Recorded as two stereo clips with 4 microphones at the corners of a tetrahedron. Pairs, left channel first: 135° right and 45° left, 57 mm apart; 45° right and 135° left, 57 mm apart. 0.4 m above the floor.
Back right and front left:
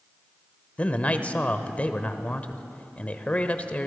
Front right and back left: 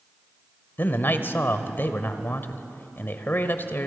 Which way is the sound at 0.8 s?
80° right.